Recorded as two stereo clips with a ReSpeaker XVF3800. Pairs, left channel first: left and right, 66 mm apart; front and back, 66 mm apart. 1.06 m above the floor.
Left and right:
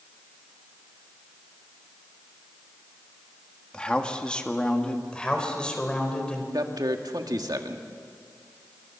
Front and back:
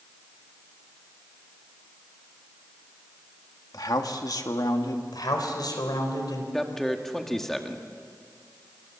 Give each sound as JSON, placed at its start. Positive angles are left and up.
{"t": 3.7, "sound": "a man speaking", "azimuth_deg": 15, "distance_m": 2.0}
{"t": 5.1, "sound": "a man speaking", "azimuth_deg": 15, "distance_m": 4.0}
{"t": 6.5, "sound": "a man speaking", "azimuth_deg": -85, "distance_m": 2.0}